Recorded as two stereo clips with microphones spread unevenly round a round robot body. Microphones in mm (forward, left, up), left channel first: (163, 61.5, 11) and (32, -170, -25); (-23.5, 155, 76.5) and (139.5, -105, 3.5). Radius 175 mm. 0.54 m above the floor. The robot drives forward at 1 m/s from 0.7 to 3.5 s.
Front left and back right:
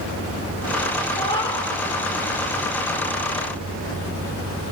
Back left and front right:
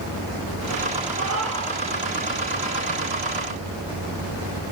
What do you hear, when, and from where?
1.2 s a cat meowing: 10° right, 2.5 m